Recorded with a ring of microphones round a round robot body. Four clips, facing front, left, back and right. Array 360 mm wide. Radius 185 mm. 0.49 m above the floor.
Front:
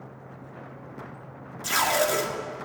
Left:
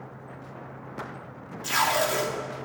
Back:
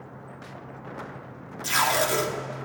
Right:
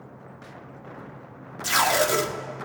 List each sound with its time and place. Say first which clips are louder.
1.6 s tape being pulled: right 2 dB, even; 95° right, 1.4 m